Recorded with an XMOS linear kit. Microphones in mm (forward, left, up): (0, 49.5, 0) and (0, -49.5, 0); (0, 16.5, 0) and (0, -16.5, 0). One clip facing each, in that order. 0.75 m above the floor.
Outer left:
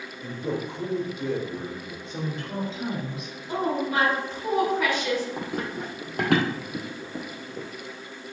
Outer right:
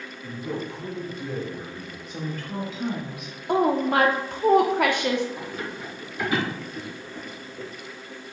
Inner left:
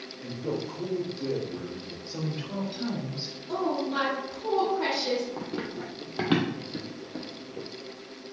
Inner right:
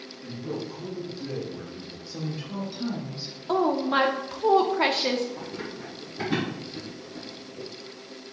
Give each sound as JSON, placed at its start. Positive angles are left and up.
{"t": 0.2, "sound": "a man speaking", "side_deg": 70, "distance_m": 3.0}
{"t": 2.1, "sound": "a woman speaking", "side_deg": 30, "distance_m": 2.5}
{"t": 3.5, "sound": "a woman speaking", "side_deg": -55, "distance_m": 1.0}
{"t": 5.4, "sound": "running footsteps", "side_deg": 45, "distance_m": 2.0}